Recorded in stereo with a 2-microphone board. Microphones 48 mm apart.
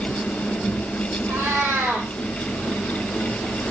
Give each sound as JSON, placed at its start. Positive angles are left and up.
{"t": 1.3, "sound": "a cat meowing", "side_deg": -60, "distance_m": 6.5}